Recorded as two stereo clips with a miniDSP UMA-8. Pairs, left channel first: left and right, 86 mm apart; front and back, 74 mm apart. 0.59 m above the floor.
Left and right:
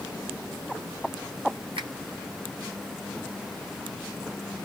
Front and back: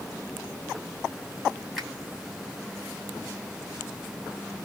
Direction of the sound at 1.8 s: 90° right.